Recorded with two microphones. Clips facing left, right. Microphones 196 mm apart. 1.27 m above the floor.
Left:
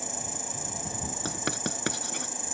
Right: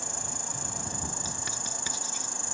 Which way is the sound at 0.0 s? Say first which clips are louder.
Left 2 dB; 5° left (ahead or behind).